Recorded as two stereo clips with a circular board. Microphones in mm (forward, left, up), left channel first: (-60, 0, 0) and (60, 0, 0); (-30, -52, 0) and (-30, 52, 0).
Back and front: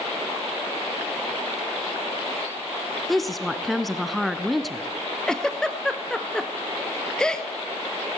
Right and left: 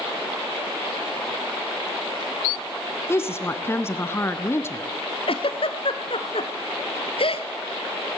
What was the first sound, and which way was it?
A woman speaking, 95° right.